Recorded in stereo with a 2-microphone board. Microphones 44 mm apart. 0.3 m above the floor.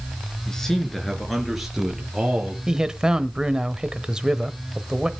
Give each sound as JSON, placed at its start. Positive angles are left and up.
{"t": 0.5, "sound": "a man speaking", "side_deg": 10, "distance_m": 3.5}
{"t": 2.7, "sound": "a man speaking", "side_deg": -15, "distance_m": 1.0}